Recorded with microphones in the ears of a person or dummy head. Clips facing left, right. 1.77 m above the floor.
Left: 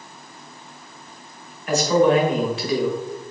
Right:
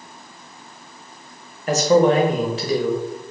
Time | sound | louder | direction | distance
1.7 | a man speaking | right 2 dB | 35° right (ahead or behind) | 0.9 m